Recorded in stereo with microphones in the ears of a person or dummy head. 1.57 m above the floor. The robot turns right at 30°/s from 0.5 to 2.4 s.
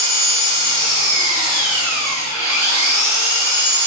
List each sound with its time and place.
0.0 s an engine running: 145° right, 1.8 m; by 3.9 s 90° right, 1.8 m